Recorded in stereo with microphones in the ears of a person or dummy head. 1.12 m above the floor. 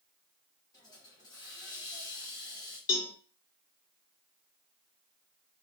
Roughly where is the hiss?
Left.